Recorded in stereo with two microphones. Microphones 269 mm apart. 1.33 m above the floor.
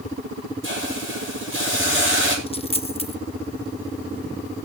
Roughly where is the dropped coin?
Left.